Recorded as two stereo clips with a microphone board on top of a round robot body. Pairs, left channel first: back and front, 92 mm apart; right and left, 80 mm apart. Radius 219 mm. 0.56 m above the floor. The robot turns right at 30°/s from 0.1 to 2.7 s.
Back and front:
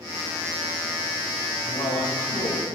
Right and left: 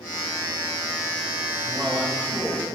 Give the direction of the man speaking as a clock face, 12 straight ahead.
6 o'clock.